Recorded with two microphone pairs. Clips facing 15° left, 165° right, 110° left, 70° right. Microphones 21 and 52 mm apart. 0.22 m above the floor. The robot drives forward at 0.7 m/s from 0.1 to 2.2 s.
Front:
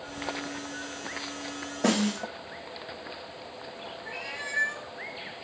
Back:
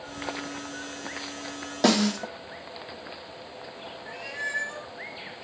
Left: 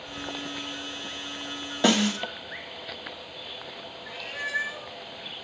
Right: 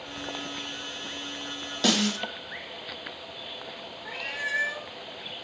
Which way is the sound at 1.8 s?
Straight behind.